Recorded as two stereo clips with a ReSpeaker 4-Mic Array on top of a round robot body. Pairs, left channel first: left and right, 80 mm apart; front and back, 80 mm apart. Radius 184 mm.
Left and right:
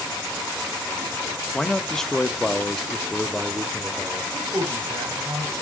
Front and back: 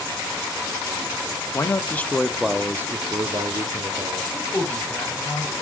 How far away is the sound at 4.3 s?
About 2.5 m.